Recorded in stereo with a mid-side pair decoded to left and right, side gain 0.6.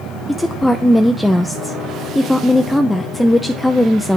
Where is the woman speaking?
5° left, 0.5 m.